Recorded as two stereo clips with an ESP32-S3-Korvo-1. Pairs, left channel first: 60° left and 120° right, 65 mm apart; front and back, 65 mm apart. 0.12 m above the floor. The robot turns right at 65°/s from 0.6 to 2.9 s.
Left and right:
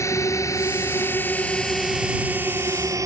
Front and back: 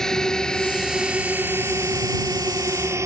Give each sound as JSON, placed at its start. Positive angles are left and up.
{"t": 0.0, "sound": "a drone", "azimuth_deg": 80}